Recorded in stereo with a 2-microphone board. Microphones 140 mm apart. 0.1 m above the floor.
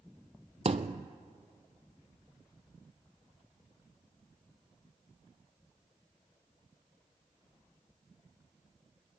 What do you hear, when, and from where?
0.7 s a thud: 50° right (ahead or behind), 0.7 m